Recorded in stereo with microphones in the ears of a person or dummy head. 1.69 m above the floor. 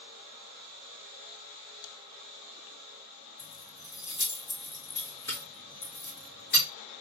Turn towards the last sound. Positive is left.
turn(degrees=40)  # may be behind; listen again after turning